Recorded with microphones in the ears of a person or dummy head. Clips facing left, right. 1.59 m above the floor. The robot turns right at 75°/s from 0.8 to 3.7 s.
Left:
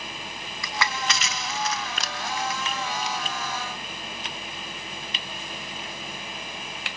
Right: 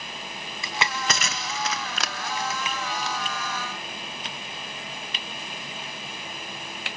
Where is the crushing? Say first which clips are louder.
Even; 25° right (ahead or behind), 0.9 m; by 3.2 s 20° left (ahead or behind), 0.9 m.